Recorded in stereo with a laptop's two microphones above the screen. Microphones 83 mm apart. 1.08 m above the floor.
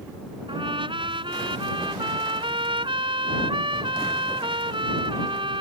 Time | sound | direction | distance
0.5 | a trumpet | 80° right | ?